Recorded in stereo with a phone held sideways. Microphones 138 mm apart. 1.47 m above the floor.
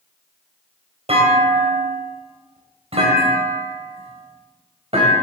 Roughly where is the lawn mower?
No lawn mower in this recording.